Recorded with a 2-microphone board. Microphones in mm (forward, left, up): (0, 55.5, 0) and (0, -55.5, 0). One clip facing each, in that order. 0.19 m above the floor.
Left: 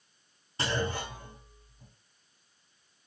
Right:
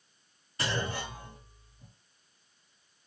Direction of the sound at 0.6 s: 30° left (ahead or behind).